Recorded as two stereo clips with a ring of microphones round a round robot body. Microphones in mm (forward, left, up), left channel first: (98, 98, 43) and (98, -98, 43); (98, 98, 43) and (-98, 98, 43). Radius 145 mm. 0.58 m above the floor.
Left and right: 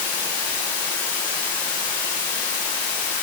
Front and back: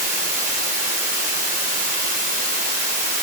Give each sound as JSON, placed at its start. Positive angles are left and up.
{"t": 0.0, "sound": "running water", "azimuth_deg": 140, "distance_m": 2.0}